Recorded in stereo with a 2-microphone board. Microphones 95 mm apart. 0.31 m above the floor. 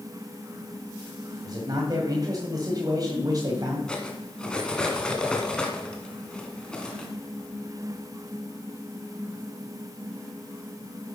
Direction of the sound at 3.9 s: 10° left (ahead or behind).